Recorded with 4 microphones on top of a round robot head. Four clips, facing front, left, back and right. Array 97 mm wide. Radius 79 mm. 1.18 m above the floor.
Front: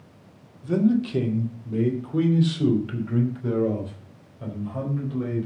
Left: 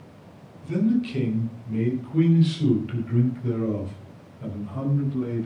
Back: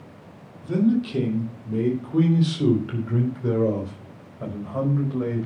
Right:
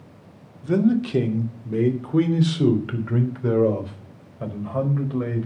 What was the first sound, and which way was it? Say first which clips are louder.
A man speaking: right 3 dB, even; 80° right.